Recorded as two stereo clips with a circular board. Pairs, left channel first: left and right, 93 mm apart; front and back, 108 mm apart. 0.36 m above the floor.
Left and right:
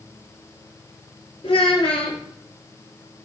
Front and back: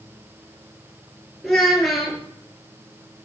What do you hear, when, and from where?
1.4 s a child speaking: 90° left, 4 m